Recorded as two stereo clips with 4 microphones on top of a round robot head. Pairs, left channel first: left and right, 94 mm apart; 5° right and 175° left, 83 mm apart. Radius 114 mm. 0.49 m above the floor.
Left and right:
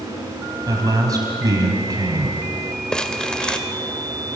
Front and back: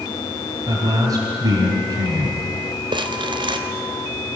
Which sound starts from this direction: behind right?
A man speaking, at 0.7 s.